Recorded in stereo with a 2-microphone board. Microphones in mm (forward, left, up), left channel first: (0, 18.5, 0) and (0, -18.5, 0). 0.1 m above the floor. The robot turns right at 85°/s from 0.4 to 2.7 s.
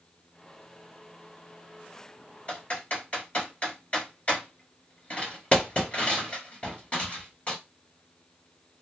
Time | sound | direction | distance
2.5 | typing on a keyboard | 35° left (ahead or behind) | 1.9 m